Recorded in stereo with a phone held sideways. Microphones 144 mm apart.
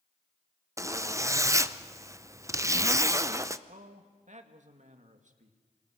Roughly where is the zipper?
Right.